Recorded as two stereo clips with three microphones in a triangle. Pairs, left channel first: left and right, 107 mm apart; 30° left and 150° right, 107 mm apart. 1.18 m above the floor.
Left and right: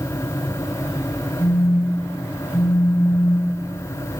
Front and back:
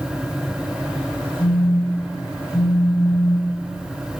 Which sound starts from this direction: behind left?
A phone buzzing, at 1.4 s.